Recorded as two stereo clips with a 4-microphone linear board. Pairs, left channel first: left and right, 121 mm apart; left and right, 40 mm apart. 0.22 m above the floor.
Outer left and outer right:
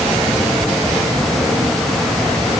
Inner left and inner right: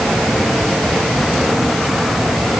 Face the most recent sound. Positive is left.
No sound to turn to.